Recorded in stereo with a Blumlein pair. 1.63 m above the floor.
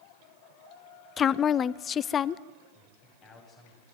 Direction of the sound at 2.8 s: 25° left.